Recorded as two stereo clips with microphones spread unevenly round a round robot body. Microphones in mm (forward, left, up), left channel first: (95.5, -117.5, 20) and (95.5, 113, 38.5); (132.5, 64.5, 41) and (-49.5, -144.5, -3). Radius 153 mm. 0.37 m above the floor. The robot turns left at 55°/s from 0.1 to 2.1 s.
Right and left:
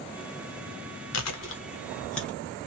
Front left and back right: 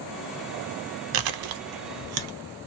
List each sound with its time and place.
1.1 s chewing: 125° right, 0.6 m; by 2.4 s 175° right, 0.6 m